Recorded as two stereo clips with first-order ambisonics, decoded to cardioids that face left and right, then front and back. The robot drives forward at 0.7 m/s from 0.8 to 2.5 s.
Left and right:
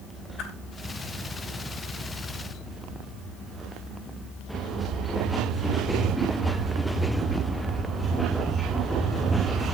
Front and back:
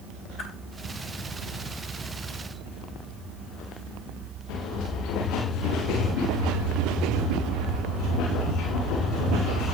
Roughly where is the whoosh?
Ahead left.